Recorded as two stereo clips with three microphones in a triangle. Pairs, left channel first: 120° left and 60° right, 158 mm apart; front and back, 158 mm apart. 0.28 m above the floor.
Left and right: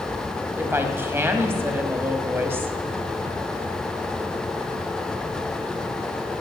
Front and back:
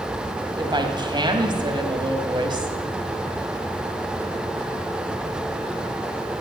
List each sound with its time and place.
0.6 s a woman speaking: 130° right, 1.7 m